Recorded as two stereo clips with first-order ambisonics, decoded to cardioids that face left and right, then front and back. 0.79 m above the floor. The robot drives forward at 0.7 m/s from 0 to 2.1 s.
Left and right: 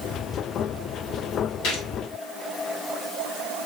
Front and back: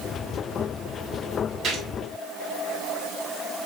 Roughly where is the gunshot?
Behind left.